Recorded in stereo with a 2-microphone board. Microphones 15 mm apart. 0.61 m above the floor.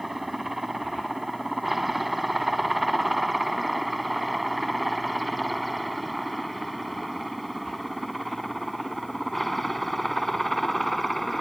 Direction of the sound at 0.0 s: 5° right (ahead or behind).